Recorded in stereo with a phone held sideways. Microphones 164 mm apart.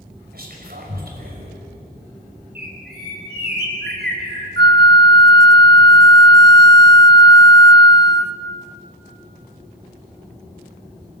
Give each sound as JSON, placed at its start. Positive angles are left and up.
{"t": 0.3, "sound": "whispering", "side_deg": -65, "distance_m": 6.0}
{"t": 2.5, "sound": "a bird", "side_deg": -85, "distance_m": 5.5}
{"t": 4.6, "sound": "a flute", "side_deg": -85, "distance_m": 0.6}